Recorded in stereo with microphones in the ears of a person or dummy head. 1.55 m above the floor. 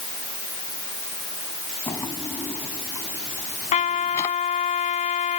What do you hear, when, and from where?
1.9 s a drawer: 15° left (ahead or behind)
3.7 s a trumpet: 30° left (ahead or behind)